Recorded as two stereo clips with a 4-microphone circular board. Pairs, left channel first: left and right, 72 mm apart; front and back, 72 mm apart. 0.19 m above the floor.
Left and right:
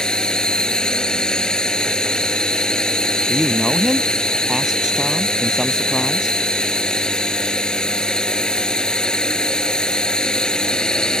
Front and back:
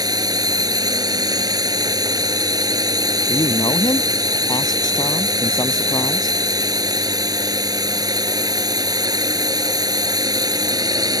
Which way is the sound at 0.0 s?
170° left.